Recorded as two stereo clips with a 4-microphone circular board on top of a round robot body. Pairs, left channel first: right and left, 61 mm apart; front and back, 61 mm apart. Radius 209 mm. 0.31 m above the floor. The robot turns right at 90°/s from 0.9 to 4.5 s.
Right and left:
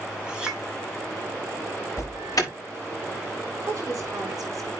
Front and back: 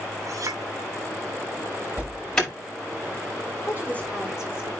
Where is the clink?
165° left, 2.5 m.